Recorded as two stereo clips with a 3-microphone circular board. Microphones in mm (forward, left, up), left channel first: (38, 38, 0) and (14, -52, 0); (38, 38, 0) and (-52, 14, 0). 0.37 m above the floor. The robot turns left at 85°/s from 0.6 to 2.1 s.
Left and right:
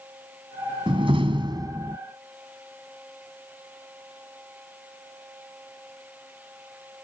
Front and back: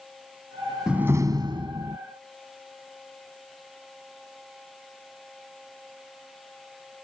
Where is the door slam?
85° right; by 2.0 s 175° right.